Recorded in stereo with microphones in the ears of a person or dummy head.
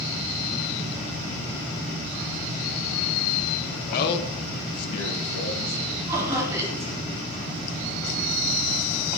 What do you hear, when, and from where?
3.9 s a man speaking: 45° left (ahead or behind), 0.7 m; by 5.8 s 80° left, 1.6 m
6.1 s laughter: 15° right (ahead or behind), 2.5 m